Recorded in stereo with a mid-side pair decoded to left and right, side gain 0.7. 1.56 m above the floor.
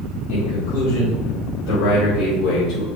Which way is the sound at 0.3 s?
60° left.